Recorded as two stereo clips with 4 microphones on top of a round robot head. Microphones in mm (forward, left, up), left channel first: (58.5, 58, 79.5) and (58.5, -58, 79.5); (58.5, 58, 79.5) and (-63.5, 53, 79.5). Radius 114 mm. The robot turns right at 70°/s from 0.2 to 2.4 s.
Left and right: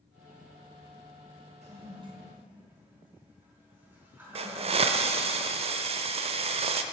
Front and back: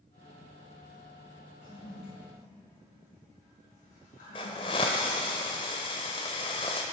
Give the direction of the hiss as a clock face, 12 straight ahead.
2 o'clock.